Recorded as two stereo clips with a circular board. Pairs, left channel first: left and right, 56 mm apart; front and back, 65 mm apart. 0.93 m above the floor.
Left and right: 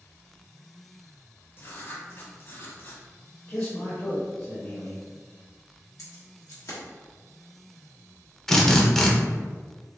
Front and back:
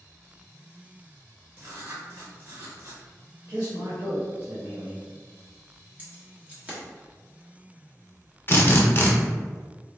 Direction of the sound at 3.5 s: 150° left.